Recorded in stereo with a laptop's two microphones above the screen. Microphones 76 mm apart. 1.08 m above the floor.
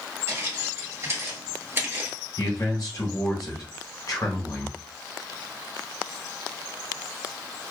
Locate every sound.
0.3 s footsteps: 40° right (ahead or behind), 1.3 m; by 2.2 s 25° right (ahead or behind), 1.4 m
2.4 s a man speaking: 55° left (ahead or behind), 0.9 m